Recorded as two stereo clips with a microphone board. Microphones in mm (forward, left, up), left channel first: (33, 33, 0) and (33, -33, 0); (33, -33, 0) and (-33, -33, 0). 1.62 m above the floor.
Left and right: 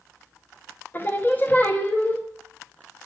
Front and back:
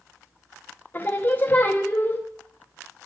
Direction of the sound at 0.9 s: 45° left.